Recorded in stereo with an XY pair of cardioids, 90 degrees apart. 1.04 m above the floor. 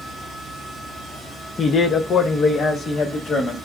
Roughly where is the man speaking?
Ahead left.